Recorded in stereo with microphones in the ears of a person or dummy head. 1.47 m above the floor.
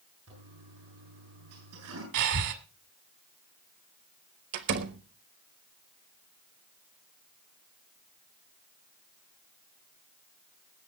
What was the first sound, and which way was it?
A toilet flushing, 85° right.